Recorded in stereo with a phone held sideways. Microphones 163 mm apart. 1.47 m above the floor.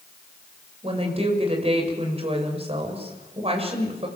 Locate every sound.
0.8 s a woman speaking: 40° right (ahead or behind), 6.5 m